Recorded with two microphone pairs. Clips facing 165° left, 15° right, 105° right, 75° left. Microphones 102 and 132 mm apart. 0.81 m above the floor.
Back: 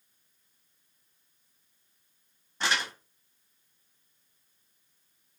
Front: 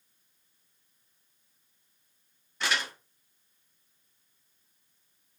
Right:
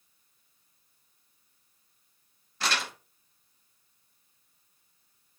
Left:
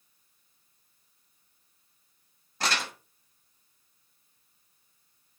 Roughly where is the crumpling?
Behind left.